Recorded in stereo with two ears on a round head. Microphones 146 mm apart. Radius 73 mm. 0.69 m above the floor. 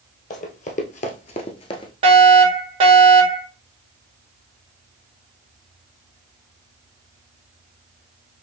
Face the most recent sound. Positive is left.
turn(degrees=-35)  # may be behind; listen again after turning